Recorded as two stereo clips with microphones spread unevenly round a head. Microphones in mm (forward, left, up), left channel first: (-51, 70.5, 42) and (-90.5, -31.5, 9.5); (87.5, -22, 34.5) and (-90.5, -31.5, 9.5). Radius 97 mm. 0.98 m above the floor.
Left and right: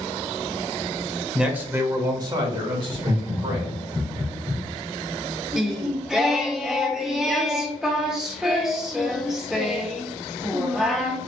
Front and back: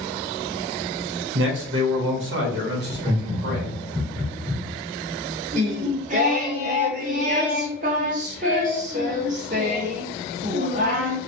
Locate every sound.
1.4 s a man speaking: 170° left, 1.1 m; by 3.7 s 140° right, 2 m
2.9 s laughter: 125° right, 2.5 m
5.5 s singing: 145° left, 0.7 m